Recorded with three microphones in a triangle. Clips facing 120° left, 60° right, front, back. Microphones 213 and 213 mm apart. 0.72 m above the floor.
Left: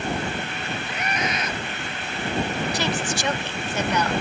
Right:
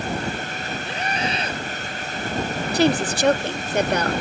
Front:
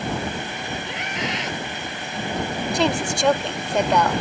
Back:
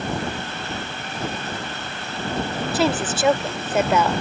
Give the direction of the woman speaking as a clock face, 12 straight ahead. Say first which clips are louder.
Right 7 dB, back 1 dB; 3 o'clock.